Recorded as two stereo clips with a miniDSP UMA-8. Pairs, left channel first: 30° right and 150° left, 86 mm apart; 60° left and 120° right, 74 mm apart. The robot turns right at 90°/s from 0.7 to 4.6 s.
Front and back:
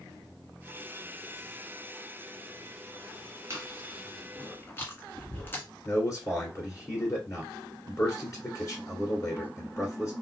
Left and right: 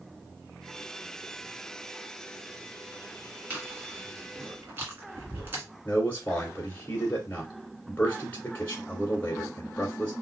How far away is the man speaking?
About 1.9 m.